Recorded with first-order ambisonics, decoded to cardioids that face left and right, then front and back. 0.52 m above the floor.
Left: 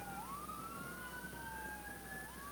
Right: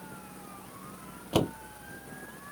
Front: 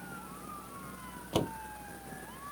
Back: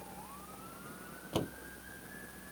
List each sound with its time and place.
1.3 s a door slam: 75° right